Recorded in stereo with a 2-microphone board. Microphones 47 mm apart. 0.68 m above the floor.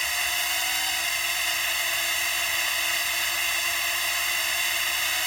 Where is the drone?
5° left (ahead or behind).